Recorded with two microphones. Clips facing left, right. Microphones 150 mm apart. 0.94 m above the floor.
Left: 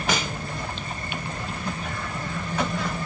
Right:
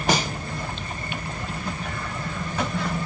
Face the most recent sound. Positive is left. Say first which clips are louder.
# right 4 dB
turn(degrees=-35)  # may be behind; listen again after turning